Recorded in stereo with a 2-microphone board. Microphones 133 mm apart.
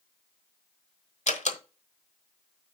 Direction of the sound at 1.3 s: 60° left (ahead or behind).